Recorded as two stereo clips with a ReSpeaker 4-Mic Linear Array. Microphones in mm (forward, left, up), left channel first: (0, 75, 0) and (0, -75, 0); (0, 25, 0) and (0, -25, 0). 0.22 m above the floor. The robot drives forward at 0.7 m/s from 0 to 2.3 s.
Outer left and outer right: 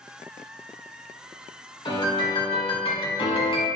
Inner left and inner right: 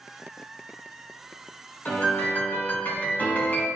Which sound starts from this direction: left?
A piano, at 1.9 s.